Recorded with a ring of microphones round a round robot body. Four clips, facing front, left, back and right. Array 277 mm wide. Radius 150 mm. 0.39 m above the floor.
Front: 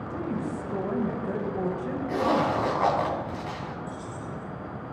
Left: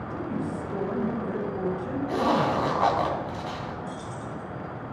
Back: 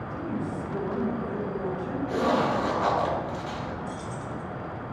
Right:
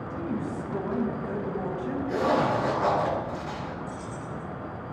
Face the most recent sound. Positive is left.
turn(degrees=150)